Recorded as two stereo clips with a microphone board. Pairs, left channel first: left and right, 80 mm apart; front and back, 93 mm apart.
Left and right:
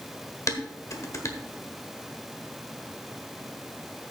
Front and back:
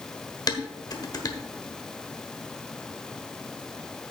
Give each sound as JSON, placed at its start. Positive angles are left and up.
{"t": 0.5, "sound": "dishes clattering", "azimuth_deg": 45, "distance_m": 1.3}